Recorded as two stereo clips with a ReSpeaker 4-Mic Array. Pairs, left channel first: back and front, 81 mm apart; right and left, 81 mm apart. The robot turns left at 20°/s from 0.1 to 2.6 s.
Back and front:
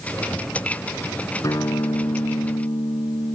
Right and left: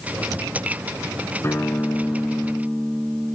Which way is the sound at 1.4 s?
140° right.